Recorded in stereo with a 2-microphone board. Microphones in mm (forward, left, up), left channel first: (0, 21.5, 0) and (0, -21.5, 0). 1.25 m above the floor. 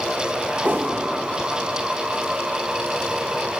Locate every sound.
0.6 s a whoosh: 45° right (ahead or behind), 1.2 m